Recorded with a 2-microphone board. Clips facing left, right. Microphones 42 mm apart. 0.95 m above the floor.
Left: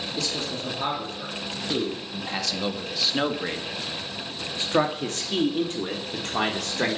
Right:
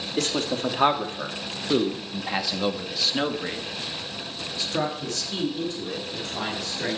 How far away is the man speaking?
About 2.5 m.